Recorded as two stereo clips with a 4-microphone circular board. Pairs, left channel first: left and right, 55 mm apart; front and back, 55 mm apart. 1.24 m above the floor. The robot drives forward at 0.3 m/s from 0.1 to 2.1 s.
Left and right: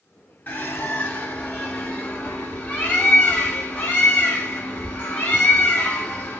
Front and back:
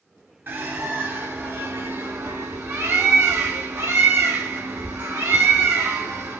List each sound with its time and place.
0.5 s a bird: 140° left, 1.1 m; by 6.4 s 155° left, 1.5 m